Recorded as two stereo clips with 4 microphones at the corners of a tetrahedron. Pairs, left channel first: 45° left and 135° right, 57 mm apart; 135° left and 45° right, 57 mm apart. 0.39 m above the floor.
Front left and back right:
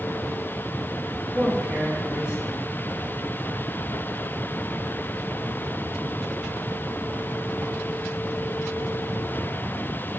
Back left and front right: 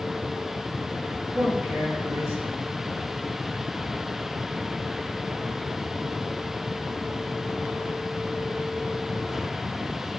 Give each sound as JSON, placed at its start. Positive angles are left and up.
{"t": 1.3, "sound": "a man speaking", "azimuth_deg": -65, "distance_m": 4.5}